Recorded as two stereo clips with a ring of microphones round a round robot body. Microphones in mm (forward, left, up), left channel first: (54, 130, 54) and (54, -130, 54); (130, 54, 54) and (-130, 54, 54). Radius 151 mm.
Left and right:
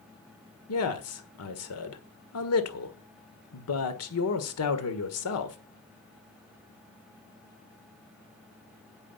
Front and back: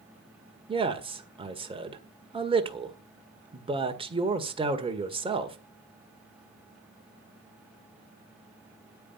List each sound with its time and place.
0.7 s a man speaking: 110° left, 1.7 m